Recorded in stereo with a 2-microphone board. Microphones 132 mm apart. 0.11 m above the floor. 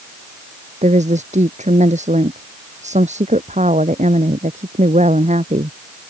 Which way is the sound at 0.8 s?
60° right (ahead or behind).